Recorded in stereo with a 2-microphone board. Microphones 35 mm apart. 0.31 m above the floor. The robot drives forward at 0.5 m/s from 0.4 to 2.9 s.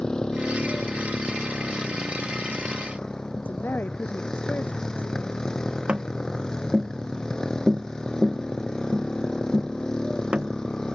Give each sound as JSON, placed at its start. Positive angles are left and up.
{"t": 0.0, "sound": "a motorcycle", "side_deg": 20}
{"t": 3.4, "sound": "a woman speaking", "side_deg": 85}
{"t": 5.9, "sound": "tapping", "side_deg": -30}